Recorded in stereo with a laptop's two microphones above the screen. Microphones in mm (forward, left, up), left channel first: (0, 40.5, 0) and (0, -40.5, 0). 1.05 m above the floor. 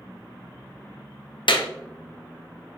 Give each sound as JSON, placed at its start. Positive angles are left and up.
{"t": 1.5, "sound": "a clap", "side_deg": 80, "distance_m": 0.9}